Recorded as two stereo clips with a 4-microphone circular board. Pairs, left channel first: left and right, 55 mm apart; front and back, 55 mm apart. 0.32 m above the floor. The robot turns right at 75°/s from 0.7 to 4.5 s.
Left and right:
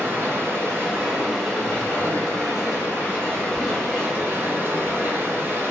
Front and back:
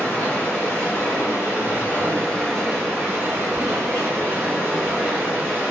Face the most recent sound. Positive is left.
turn(degrees=-125)